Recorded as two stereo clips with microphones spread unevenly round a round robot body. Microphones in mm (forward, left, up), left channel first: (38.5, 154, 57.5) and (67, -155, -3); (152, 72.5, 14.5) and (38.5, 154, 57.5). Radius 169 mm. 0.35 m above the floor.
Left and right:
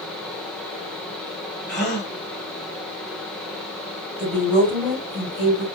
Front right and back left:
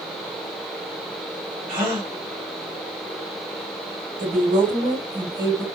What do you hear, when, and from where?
1.7 s a gasp: 155° left, 1.6 m
4.2 s a woman speaking: 170° right, 2.5 m